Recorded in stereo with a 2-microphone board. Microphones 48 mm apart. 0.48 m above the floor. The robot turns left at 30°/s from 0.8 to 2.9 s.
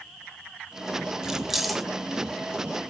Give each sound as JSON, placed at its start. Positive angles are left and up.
{"t": 1.2, "sound": "keys jangling", "side_deg": -10, "distance_m": 1.2}